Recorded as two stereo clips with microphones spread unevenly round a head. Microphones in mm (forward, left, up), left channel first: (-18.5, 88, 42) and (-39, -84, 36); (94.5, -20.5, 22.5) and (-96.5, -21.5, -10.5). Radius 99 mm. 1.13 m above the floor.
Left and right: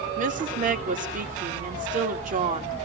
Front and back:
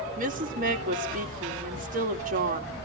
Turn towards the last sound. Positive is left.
turn(degrees=-135)